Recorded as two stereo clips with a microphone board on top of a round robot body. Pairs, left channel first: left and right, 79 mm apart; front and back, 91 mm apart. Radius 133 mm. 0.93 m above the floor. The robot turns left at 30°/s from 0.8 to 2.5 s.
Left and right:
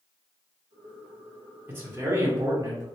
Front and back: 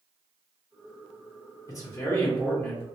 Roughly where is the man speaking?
Ahead right.